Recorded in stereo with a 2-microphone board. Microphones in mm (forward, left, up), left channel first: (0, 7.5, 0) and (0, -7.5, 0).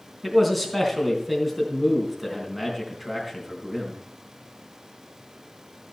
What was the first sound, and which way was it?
A man speaking, centre (ahead or behind).